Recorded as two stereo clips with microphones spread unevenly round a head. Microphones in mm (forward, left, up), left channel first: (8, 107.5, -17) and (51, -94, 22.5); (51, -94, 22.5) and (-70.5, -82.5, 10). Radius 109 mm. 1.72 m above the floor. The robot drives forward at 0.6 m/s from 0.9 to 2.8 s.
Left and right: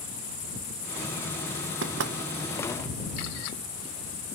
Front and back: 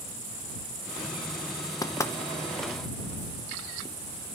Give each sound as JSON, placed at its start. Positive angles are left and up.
{"t": 1.8, "sound": "knocking", "azimuth_deg": -60, "distance_m": 1.4}